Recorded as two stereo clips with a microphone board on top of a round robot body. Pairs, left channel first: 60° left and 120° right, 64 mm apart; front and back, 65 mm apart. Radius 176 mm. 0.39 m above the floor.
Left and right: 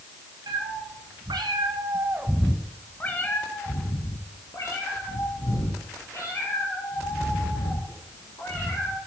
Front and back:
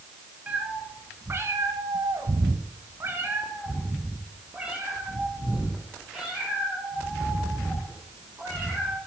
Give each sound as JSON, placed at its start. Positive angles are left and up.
{"t": 0.5, "sound": "a cat meowing", "azimuth_deg": -110, "distance_m": 1.5}